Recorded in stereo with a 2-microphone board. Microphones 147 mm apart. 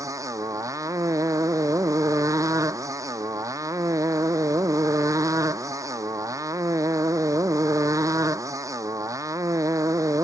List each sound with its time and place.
0.0 s a motorcycle: 20° right (ahead or behind)